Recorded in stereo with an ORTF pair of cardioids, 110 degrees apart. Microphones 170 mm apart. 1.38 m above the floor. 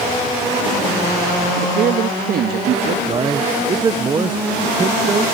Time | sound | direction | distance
1.6 | a man speaking | 60° right | ?
3.1 | a man speaking | 25° right | ?